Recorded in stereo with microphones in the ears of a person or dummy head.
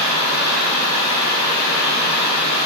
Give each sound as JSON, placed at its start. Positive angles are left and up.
{"t": 0.0, "sound": "running water", "side_deg": -25, "distance_m": 1.4}